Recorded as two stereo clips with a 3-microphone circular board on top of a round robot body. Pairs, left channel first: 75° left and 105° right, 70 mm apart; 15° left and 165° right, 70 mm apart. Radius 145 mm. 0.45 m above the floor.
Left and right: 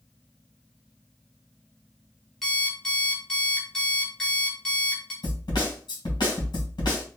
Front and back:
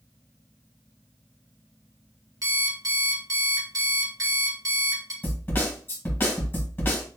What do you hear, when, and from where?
2.4 s an alarm clock: 155° left, 1.4 m
5.2 s a snare drum: 80° left, 1.8 m